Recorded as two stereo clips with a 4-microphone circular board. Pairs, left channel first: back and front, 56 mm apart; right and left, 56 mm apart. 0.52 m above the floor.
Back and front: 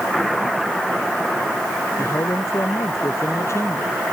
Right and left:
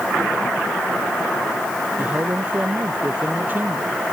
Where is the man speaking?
150° left; by 4.0 s 145° left.